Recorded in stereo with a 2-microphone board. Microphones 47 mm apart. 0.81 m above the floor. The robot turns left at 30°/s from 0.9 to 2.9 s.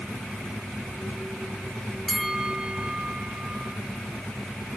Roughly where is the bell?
Centre.